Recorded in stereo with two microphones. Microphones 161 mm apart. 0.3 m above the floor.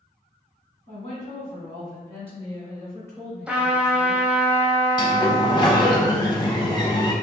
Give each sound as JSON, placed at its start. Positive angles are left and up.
{"t": 0.9, "sound": "a woman speaking", "side_deg": 50, "distance_m": 1.7}
{"t": 3.5, "sound": "a trumpet", "side_deg": -5, "distance_m": 0.7}
{"t": 5.0, "sound": "a sliding door", "side_deg": 30, "distance_m": 0.6}